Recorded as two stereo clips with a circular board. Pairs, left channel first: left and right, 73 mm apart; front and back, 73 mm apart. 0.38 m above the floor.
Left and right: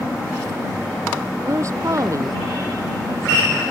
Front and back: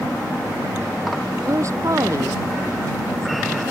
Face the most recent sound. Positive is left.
turn(degrees=-135)